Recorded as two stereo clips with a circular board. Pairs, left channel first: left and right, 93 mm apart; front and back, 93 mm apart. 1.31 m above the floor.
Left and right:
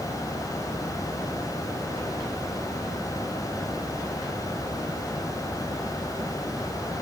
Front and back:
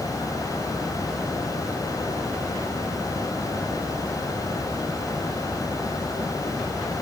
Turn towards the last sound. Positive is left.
No sound to turn to.